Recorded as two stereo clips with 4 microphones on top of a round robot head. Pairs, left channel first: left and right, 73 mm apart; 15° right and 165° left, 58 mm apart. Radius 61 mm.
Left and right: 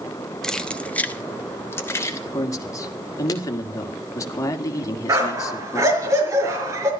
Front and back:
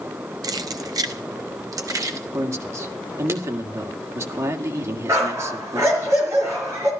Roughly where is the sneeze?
I don't hear a sneeze.